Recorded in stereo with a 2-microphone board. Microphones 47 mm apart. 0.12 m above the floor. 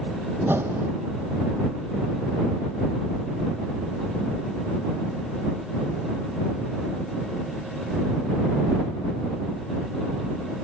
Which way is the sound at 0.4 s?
55° right (ahead or behind).